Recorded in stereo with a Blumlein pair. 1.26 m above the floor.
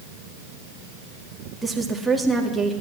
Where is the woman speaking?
5° right, 2.5 m.